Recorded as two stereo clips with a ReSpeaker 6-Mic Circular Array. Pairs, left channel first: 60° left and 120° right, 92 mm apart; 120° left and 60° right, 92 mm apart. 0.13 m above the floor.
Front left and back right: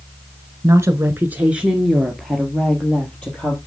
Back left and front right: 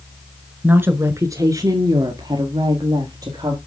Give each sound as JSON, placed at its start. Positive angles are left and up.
{"t": 0.6, "sound": "a woman speaking", "azimuth_deg": -115, "distance_m": 1.2}